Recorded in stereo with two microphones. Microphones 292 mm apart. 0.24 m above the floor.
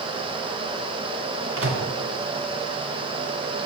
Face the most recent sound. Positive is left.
turn(degrees=-50)  # may be behind; listen again after turning